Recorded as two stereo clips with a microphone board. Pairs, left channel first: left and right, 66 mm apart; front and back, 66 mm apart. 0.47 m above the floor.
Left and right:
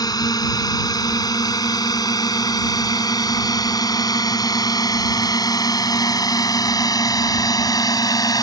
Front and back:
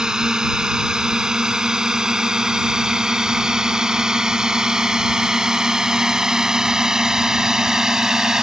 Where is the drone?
100° left.